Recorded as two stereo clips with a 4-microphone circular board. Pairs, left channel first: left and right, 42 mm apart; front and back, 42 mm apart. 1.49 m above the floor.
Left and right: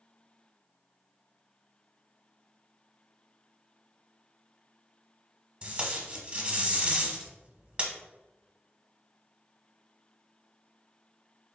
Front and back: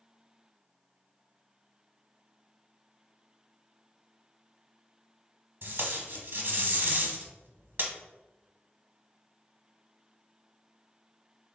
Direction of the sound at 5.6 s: 145° right.